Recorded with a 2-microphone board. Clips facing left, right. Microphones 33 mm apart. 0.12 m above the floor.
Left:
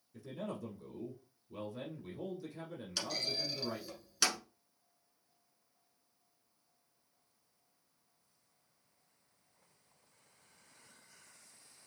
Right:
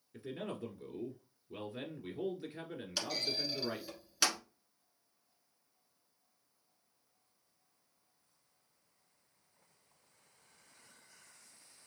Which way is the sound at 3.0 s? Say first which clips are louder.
Right 1 dB; 5° right (ahead or behind).